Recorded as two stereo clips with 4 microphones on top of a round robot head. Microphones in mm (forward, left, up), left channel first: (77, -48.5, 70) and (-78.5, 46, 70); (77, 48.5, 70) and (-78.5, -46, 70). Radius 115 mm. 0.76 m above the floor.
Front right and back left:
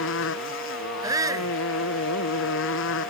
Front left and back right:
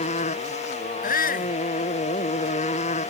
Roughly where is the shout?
Left.